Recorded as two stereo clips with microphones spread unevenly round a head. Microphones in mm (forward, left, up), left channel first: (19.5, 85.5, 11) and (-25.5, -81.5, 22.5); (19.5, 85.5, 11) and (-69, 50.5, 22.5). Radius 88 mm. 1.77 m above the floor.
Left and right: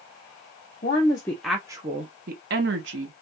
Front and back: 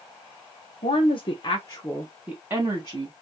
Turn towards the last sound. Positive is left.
turn(degrees=-95)